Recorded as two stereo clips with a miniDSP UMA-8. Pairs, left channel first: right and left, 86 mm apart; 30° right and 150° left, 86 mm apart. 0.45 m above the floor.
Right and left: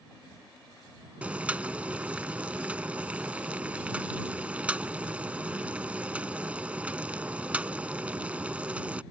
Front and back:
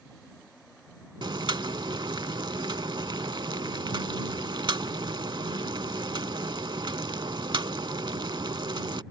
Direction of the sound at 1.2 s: 165° left.